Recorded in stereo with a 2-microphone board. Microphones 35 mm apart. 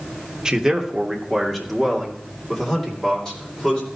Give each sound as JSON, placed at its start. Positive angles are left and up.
{"t": 0.5, "sound": "a man speaking", "side_deg": -20, "distance_m": 1.0}